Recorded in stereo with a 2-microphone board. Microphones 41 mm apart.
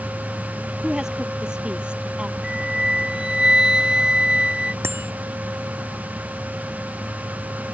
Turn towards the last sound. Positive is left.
turn(degrees=-85)